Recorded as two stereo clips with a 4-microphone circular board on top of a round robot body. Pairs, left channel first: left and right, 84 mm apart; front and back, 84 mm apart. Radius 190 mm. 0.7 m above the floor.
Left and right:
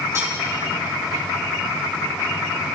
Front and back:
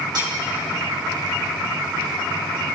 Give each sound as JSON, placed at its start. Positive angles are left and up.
{"t": 0.1, "sound": "cutlery clinking", "azimuth_deg": -145, "distance_m": 2.5}